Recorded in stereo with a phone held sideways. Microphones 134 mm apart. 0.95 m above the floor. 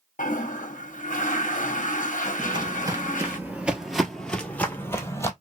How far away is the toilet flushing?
About 0.7 m.